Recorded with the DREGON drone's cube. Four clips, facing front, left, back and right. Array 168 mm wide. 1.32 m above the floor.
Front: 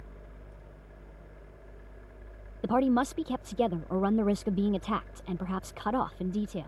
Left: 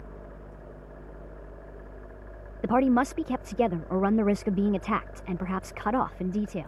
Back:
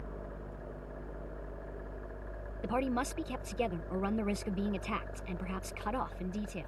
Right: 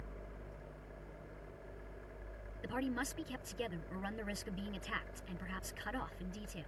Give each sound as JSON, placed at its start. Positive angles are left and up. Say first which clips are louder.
{"t": 2.6, "sound": "a woman speaking", "louder": "left 17 dB, front 8 dB", "azimuth_deg": 70}